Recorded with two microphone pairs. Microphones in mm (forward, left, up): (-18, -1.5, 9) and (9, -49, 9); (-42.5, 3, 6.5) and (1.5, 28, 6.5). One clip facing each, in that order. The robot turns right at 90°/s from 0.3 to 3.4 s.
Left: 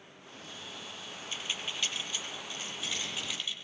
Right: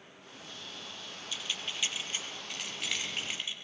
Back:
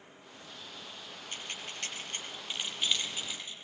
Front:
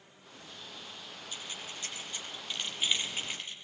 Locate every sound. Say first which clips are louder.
1.3 s keys jangling: left 1 dB, back 2 dB; 175° left, 5.5 m; by 3.5 s straight ahead, 5.5 m